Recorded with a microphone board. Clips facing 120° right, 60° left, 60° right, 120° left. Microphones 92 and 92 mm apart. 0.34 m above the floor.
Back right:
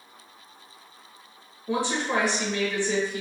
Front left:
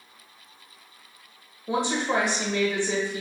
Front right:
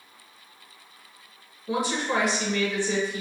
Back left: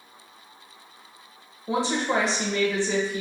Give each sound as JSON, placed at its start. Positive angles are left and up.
{"t": 1.7, "sound": "a woman speaking", "azimuth_deg": 105, "distance_m": 0.9}